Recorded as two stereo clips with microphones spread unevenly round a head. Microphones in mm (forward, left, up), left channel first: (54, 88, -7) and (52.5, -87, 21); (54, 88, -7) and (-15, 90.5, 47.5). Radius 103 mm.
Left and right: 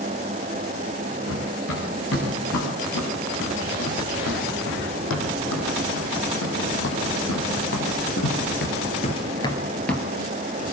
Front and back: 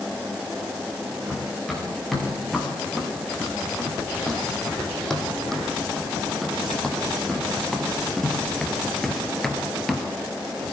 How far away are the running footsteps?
About 9 m.